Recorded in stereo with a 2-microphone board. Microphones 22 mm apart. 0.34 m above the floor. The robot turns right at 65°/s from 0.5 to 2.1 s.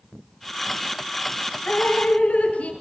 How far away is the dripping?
About 5 m.